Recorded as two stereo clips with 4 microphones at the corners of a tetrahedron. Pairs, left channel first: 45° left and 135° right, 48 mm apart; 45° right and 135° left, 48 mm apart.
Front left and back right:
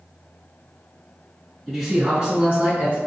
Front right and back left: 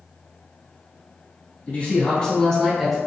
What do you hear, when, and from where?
1.7 s a man speaking: 45° right, 1.3 m; by 3.0 s 135° right, 1.4 m